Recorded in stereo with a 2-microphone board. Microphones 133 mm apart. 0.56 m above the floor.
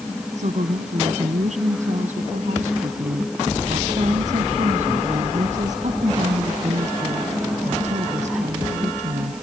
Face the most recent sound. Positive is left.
turn(degrees=-65)  # may be behind; listen again after turning